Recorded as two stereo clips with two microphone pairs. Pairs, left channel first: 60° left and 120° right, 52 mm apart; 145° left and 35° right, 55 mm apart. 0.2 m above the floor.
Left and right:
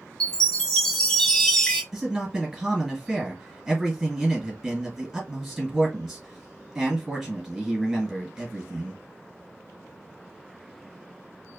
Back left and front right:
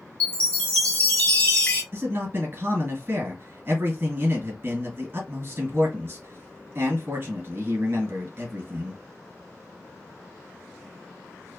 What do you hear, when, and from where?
0.2 s a chime: 115° left, 1.1 m
1.9 s a man speaking: 45° right, 1.9 m